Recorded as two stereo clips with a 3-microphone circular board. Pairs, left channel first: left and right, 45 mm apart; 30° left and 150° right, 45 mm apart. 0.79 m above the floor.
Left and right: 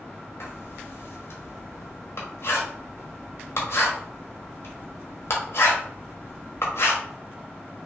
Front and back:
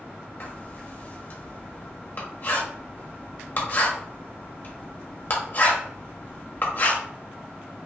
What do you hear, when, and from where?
0.4 s writing: 70° left, 1.3 m